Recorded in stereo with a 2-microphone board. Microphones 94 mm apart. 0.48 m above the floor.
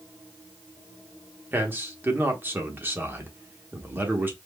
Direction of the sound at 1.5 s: 25° right (ahead or behind).